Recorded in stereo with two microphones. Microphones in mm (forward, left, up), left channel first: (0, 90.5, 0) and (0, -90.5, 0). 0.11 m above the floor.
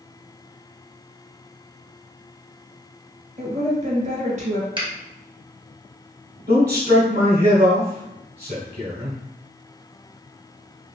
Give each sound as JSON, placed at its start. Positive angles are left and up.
{"t": 3.4, "sound": "a woman speaking", "side_deg": -40, "distance_m": 1.8}
{"t": 4.8, "sound": "a finger snap", "side_deg": -25, "distance_m": 1.5}
{"t": 6.5, "sound": "a man speaking", "side_deg": -45, "distance_m": 1.6}